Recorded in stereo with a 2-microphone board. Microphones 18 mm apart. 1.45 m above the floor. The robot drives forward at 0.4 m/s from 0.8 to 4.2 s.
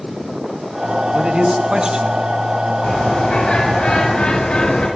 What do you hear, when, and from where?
1.1 s a man speaking: 55° right (ahead or behind), 2.5 m; by 2.7 s 40° right (ahead or behind), 2.5 m
2.8 s a bird: 90° left, 9 m; by 4.9 s 85° left, 9 m